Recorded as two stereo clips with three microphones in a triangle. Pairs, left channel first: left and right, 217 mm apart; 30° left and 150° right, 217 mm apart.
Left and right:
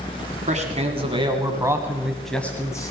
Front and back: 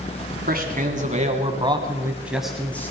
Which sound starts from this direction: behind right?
A man speaking, at 0.5 s.